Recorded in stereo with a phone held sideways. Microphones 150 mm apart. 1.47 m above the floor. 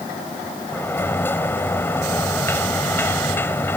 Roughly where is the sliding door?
Centre.